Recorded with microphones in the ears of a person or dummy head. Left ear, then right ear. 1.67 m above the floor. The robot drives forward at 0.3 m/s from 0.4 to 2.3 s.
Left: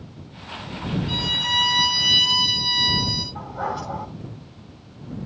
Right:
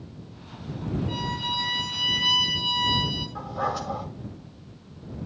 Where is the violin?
Centre (ahead or behind), 3 m.